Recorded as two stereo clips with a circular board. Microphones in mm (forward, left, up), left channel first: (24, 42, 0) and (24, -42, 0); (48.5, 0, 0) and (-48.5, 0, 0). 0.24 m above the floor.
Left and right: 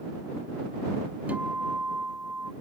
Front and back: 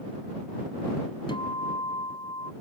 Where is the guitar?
20° right.